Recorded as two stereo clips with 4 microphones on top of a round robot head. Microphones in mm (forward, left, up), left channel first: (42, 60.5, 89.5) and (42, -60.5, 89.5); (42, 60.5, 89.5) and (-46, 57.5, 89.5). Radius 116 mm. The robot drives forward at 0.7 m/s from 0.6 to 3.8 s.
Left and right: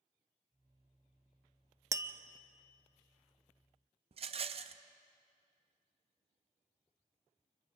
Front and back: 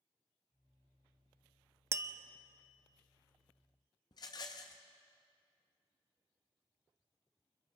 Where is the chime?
No chime in this recording.